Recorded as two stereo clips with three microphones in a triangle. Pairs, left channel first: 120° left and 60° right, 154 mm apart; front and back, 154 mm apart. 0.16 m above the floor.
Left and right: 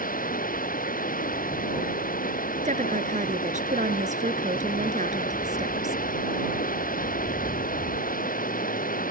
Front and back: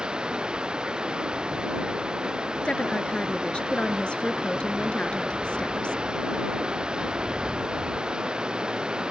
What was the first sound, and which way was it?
Running water, 95° left.